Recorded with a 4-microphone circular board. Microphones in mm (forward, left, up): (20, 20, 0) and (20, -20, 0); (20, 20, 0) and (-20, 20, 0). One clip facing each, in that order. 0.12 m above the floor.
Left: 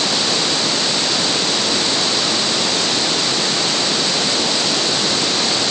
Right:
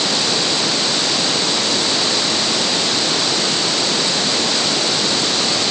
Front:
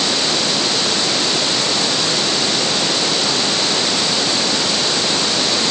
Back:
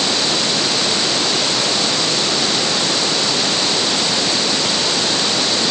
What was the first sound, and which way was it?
Only background noise.